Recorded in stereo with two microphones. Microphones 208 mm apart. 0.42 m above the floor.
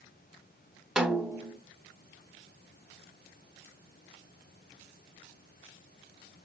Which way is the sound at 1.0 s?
5° right (ahead or behind).